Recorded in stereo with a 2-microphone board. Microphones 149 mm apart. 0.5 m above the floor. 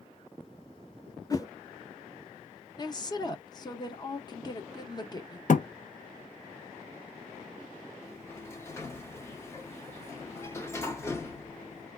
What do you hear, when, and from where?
1.3 s a whoosh: 25° left (ahead or behind), 0.6 m
2.8 s a woman speaking: 30° left (ahead or behind), 0.7 m
5.5 s a thud: 60° left (ahead or behind), 0.5 m
8.0 s a sliding door: 20° left (ahead or behind), 0.8 m